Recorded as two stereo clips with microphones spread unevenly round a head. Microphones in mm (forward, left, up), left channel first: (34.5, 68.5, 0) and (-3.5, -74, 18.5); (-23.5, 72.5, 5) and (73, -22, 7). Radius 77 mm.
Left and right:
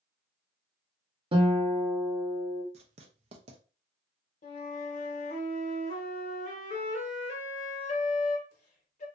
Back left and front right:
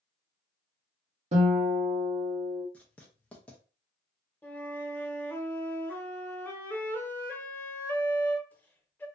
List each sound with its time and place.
1.3 s a guitar: 55° right, 0.8 m
2.7 s writing: 145° right, 0.5 m
4.4 s a flute: 65° left, 0.7 m